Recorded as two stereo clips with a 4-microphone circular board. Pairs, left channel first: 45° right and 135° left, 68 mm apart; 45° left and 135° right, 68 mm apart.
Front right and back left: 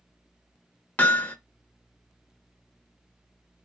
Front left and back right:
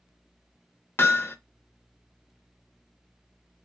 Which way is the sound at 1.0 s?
10° left.